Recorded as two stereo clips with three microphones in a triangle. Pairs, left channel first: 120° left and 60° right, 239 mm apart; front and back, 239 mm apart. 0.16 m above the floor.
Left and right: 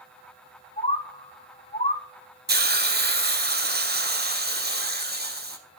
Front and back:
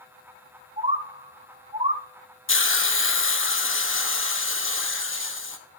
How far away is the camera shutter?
No camera shutter in this recording.